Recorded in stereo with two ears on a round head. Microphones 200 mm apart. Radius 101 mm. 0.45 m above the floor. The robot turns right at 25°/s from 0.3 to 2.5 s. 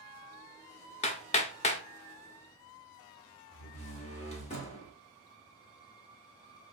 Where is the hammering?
30° left (ahead or behind), 0.6 m.